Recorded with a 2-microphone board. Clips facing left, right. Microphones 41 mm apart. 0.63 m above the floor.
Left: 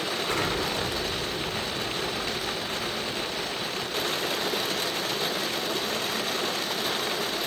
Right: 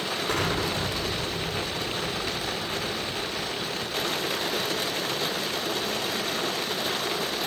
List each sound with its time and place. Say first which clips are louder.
0.3 s an explosion: right 1 dB; 65° right (ahead or behind), 4.5 m